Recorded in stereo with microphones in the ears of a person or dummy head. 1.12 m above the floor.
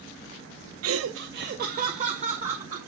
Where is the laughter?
65° right (ahead or behind), 0.6 m; by 2.8 s 25° right (ahead or behind), 1.7 m.